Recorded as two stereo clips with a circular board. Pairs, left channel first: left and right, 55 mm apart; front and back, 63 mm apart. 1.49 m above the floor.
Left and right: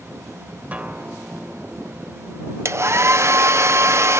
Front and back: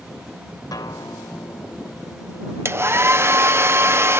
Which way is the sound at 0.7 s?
25° right.